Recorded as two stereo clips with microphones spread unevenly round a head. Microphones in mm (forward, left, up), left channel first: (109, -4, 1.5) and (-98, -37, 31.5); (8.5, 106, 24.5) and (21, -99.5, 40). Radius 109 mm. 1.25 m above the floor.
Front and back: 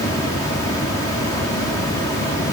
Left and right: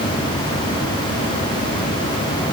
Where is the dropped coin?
No dropped coin in this recording.